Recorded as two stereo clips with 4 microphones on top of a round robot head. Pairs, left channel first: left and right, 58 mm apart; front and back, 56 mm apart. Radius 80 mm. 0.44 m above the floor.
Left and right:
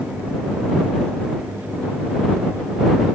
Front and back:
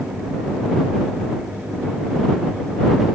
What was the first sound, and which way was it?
Only background noise.